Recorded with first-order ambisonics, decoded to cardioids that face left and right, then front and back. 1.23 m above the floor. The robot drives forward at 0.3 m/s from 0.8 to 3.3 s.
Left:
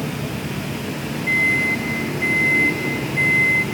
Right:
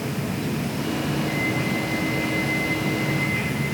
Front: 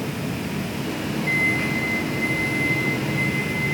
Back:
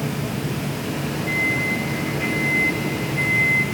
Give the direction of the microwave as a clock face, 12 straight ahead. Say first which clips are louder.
Left 12 dB, even; 10 o'clock.